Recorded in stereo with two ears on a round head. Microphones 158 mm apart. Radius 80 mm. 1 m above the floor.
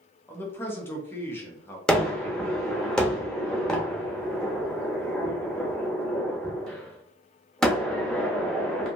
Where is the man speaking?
15° left (ahead or behind), 0.8 m.